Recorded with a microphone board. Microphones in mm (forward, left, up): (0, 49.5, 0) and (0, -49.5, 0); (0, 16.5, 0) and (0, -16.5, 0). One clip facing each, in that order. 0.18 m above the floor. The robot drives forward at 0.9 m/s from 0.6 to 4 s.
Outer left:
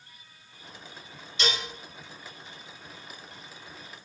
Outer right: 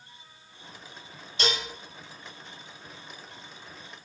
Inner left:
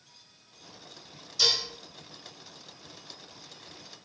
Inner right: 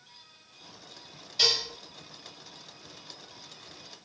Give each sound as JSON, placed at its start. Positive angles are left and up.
{"t": 1.4, "sound": "dishes clattering", "side_deg": -40, "distance_m": 2.5}